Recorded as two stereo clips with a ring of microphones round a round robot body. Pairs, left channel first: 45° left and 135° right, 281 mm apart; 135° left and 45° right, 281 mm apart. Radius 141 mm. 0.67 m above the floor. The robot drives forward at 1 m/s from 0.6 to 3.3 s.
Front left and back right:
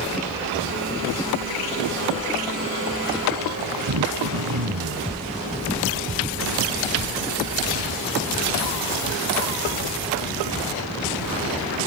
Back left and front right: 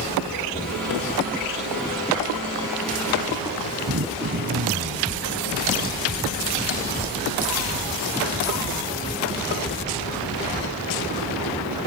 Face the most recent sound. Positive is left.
turn(degrees=-100)